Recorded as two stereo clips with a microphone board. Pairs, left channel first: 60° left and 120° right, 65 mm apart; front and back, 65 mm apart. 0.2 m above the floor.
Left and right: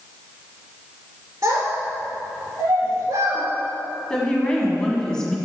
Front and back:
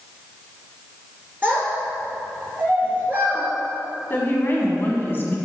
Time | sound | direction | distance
1.4 | a child speaking | 120° right | 2 m
4.1 | a woman speaking | 5° right | 1.7 m